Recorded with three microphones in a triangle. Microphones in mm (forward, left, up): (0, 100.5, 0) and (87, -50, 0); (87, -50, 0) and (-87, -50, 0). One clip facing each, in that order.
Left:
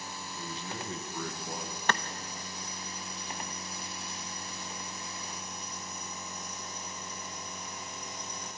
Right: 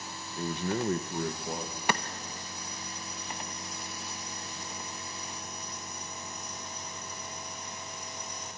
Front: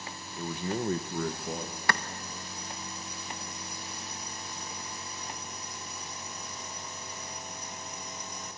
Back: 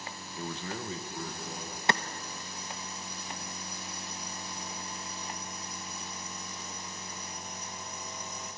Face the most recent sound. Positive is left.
turn(degrees=-130)